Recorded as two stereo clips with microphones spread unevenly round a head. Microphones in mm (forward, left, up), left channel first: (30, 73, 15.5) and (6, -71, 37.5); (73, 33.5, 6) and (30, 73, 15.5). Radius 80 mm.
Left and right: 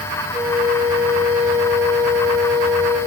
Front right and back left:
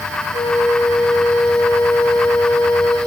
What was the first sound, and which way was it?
A flute, 30° right.